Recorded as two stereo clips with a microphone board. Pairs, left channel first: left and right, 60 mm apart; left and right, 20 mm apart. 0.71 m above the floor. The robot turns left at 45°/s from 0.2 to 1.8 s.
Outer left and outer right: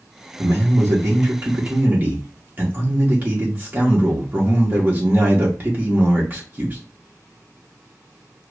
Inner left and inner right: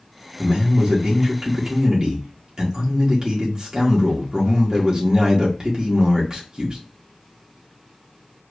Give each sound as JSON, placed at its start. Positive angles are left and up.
{"t": 0.4, "sound": "a man speaking", "azimuth_deg": -75, "distance_m": 1.0}